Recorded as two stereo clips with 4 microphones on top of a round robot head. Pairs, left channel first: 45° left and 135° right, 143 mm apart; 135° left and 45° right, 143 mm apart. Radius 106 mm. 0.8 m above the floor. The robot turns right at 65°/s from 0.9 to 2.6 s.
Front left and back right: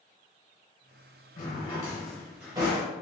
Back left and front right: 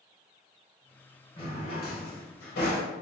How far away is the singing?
No singing in this recording.